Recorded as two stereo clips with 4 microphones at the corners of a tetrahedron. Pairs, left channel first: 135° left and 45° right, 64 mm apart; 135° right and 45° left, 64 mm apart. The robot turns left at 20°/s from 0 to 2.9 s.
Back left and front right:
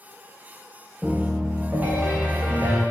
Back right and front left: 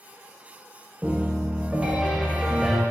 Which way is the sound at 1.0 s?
5° right.